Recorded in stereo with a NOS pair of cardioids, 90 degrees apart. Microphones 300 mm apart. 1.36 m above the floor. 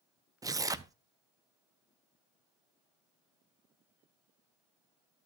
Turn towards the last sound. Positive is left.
turn(degrees=-10)